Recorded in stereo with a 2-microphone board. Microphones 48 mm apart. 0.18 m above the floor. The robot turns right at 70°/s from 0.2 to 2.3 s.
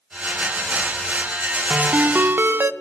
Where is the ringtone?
140° right, 0.5 m; by 2.7 s 100° right, 0.5 m.